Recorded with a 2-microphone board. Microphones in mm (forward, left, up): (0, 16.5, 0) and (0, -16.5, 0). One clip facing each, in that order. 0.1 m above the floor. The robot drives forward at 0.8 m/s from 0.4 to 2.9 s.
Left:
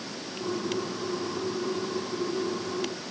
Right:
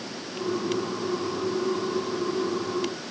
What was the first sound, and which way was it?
Only background noise.